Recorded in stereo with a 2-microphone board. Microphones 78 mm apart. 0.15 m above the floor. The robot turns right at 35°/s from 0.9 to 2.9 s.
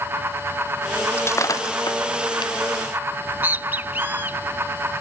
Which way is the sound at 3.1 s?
25° right (ahead or behind).